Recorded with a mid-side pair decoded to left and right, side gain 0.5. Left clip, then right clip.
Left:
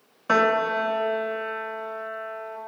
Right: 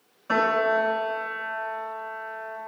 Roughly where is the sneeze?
I don't hear a sneeze.